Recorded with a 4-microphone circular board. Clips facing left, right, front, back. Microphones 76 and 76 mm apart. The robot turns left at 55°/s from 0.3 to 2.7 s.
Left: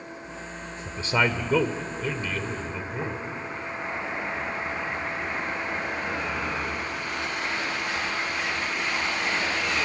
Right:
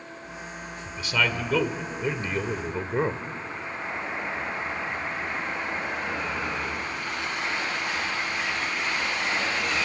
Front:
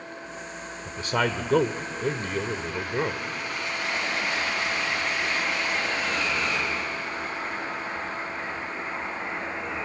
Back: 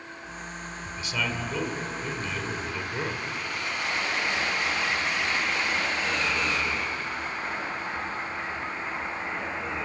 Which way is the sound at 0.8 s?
45° left.